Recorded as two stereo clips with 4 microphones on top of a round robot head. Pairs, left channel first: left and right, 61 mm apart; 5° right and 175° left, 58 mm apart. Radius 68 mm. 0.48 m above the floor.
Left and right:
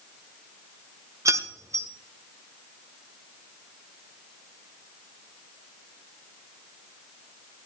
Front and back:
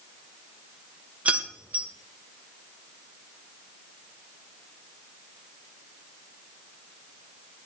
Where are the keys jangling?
120° right, 1.4 m.